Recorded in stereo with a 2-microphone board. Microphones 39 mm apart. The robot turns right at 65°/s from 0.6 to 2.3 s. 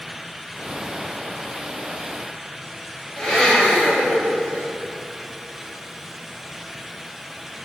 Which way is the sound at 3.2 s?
15° left (ahead or behind).